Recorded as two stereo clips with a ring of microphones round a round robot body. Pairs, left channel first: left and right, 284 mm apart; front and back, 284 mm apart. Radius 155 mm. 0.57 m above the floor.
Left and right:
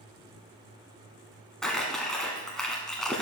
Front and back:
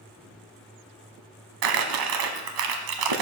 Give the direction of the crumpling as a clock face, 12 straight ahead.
6 o'clock.